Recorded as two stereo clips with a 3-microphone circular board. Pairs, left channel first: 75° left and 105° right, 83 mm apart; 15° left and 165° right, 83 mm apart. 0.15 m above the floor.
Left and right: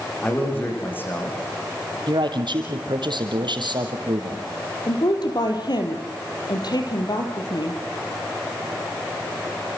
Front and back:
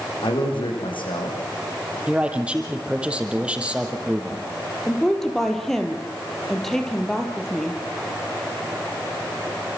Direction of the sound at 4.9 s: 100° left.